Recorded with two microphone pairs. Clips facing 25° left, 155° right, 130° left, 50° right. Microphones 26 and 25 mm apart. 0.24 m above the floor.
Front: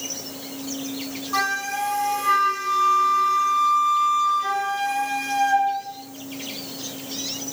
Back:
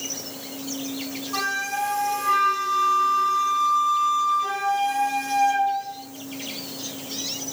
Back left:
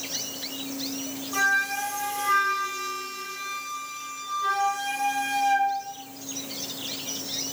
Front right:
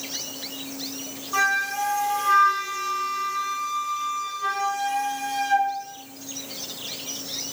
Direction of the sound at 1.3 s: 10° left.